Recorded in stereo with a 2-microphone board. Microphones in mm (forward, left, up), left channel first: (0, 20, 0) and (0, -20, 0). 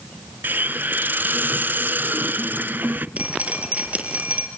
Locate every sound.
0.4 s a hiss: 50° right (ahead or behind), 0.6 m
3.2 s dripping: 35° right (ahead or behind), 3.5 m